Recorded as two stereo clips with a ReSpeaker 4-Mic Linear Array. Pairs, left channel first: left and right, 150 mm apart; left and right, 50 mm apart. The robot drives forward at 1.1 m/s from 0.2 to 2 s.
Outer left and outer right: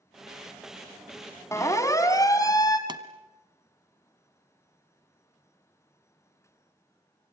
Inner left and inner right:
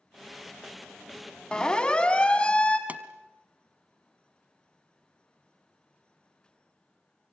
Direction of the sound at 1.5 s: 20° left (ahead or behind).